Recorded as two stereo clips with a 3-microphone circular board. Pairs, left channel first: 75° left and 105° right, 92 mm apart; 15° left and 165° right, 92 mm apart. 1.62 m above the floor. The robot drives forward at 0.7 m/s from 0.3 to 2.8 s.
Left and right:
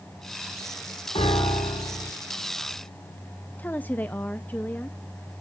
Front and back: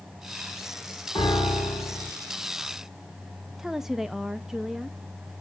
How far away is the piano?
About 5 m.